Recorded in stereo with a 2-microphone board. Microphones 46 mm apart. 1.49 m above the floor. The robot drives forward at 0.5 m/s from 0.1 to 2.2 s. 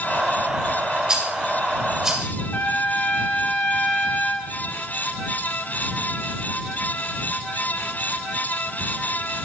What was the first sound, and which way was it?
A rattle, 20° right (ahead or behind).